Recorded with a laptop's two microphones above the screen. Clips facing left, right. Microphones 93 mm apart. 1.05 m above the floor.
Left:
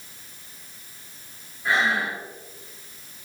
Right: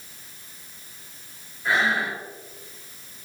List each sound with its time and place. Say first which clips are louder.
1.6 s breathing: even; centre (ahead or behind), 0.9 m